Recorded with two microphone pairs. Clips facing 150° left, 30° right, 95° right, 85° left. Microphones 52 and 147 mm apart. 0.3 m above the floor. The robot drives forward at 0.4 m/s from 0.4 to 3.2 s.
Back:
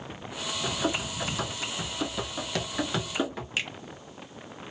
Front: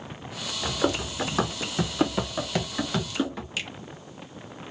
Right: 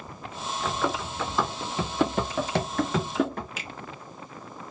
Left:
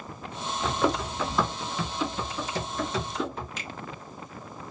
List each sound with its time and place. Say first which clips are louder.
0.6 s running footsteps: front 4 dB, left 3 dB; 10° left, 1.5 m; by 3.5 s 130° right, 1.7 m
3.6 s a finger snap: back 3 dB, even; 175° right, 1.0 m